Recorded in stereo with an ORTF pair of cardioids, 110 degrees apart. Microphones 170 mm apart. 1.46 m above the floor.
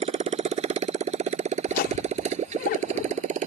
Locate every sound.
0.0 s a motorcycle: 35° right; by 3.5 s 45° right
1.7 s laughter: 65° left